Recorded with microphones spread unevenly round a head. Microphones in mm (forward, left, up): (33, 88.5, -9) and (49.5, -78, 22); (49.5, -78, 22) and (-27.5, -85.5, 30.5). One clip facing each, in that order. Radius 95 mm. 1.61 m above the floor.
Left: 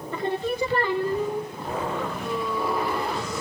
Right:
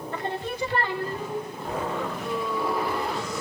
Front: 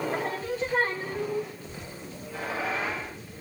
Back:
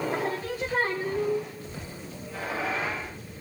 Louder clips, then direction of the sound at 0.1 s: Left 6 dB, back 1 dB; 105° left.